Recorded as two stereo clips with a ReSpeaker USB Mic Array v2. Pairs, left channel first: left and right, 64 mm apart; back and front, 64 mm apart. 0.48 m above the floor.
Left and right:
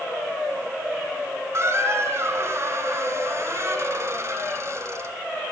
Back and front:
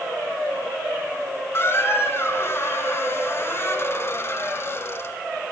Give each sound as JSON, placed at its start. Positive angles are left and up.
{"t": 1.5, "sound": "a squeak", "azimuth_deg": -130, "distance_m": 1.3}